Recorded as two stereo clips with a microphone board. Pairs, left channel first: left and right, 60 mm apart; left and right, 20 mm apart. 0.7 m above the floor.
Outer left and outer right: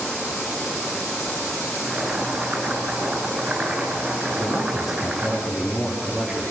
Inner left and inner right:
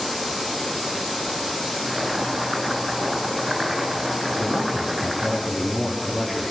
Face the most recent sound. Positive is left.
turn(degrees=-5)  # may be behind; listen again after turning